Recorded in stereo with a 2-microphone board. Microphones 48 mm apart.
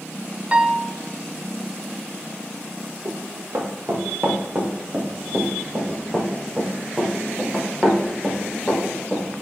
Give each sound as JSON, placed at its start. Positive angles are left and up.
{"t": 0.5, "sound": "a piano", "side_deg": -25, "distance_m": 0.6}
{"t": 3.0, "sound": "running footsteps", "side_deg": -65, "distance_m": 3.0}